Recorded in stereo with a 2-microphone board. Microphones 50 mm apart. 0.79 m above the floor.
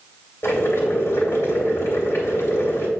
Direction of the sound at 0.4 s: 65° left (ahead or behind).